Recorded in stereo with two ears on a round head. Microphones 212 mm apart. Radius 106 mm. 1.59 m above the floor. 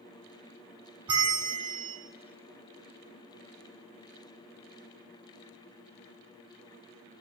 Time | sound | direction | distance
1.1 | a bell | 20° right (ahead or behind) | 1.6 m